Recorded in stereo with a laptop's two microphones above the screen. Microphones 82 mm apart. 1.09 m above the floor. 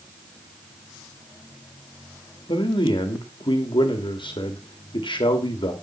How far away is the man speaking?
About 1.9 m.